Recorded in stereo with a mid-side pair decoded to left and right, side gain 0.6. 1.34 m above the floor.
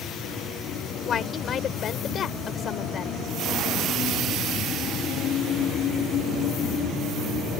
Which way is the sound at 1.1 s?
45° left.